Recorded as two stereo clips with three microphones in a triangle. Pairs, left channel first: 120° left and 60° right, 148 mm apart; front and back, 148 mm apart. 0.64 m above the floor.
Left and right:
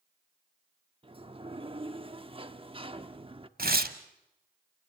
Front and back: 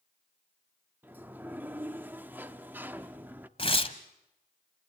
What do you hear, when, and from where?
1.0 s a sliding door: 105° right, 0.9 m
3.6 s tearing paper: 55° right, 1.2 m